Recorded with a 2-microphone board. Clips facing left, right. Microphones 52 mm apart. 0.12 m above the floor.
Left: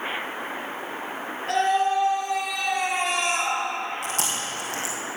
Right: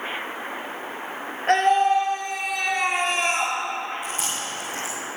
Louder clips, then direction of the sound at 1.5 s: Right 4 dB; 55° right (ahead or behind).